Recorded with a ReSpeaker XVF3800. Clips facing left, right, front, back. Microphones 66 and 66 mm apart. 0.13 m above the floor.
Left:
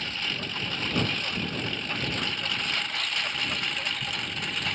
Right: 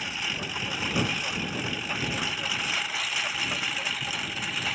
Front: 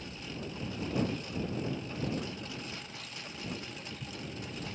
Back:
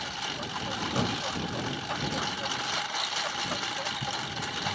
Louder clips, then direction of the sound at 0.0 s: Even, back 7 dB; 170° right.